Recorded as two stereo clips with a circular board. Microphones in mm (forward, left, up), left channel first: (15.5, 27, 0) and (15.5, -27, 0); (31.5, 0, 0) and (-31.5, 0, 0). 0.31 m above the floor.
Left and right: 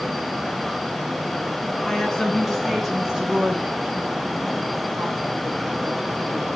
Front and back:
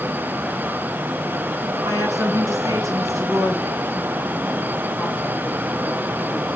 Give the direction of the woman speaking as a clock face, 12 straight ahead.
6 o'clock.